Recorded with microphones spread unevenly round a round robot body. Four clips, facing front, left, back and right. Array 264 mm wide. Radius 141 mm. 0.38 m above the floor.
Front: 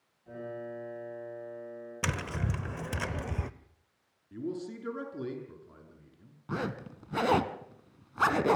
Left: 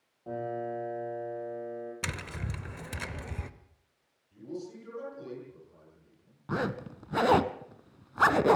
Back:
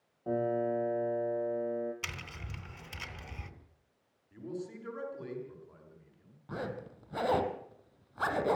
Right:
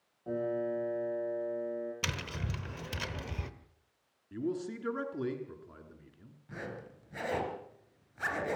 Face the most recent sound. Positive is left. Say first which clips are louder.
# left 11 dB, front 4 dB
turn(degrees=55)